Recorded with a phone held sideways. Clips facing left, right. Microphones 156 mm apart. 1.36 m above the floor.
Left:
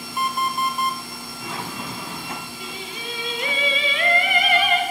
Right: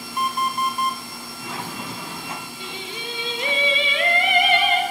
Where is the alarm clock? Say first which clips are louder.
Even; 5° left (ahead or behind), 1.8 m.